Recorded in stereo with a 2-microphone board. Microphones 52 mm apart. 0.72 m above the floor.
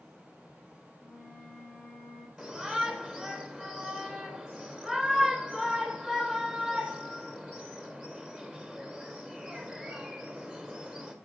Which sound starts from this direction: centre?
A shout, at 2.4 s.